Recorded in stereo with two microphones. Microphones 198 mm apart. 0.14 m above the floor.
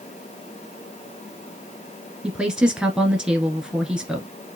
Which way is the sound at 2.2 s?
5° right (ahead or behind).